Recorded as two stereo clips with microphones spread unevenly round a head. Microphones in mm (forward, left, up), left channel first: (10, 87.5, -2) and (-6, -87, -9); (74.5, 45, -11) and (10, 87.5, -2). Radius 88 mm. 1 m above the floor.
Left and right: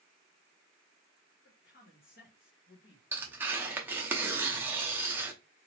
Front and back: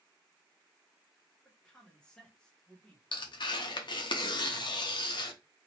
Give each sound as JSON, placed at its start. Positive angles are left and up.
{"t": 1.4, "sound": "a man speaking", "azimuth_deg": 45, "distance_m": 1.1}
{"t": 3.1, "sound": "tearing paper", "azimuth_deg": -15, "distance_m": 0.7}